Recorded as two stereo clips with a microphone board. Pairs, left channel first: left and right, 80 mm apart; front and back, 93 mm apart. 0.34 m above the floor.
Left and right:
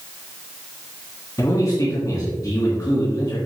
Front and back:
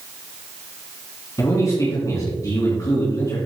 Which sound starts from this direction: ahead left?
A man speaking, at 1.4 s.